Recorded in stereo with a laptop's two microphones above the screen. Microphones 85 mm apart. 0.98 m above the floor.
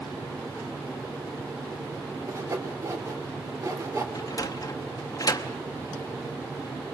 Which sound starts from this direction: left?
A sliding door, at 4.2 s.